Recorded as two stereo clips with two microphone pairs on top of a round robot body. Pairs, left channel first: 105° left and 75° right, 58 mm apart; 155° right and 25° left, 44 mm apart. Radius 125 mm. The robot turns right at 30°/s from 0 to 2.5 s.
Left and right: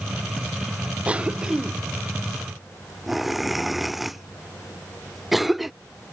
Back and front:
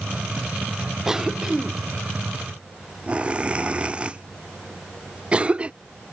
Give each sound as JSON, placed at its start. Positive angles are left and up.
{"t": 1.1, "sound": "a cough", "azimuth_deg": -35}